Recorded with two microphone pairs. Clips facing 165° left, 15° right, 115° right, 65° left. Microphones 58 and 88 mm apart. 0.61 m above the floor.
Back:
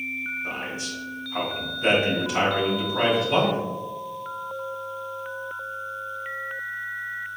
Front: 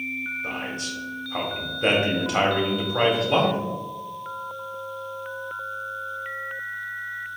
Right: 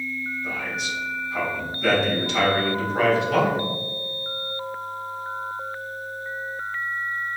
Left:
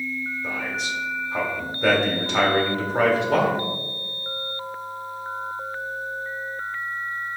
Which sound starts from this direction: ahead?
A man speaking, at 0.4 s.